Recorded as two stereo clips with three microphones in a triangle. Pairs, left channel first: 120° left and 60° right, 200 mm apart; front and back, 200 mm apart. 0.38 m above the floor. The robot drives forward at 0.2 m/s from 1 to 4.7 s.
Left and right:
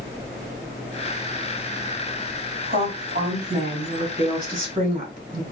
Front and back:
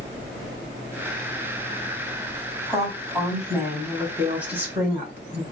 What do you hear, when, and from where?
2.7 s a woman speaking: 85° right, 1.9 m; by 5.4 s 100° right, 1.9 m